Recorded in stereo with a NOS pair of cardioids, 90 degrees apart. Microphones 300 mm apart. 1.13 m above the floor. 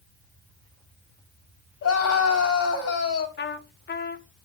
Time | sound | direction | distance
1.8 | a scream | 65° left | 3 m
3.4 | a trumpet | 35° left | 0.8 m